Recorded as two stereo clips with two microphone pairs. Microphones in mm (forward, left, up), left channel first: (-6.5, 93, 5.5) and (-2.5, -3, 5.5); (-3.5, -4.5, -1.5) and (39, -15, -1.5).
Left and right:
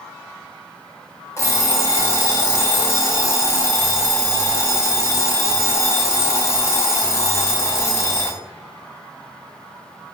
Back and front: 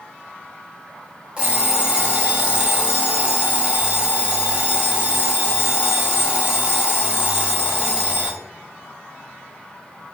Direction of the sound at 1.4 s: 45° left.